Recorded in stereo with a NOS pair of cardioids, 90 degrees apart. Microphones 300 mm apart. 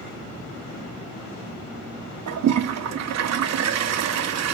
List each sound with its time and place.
2.3 s a toilet flushing: 65° right, 1.1 m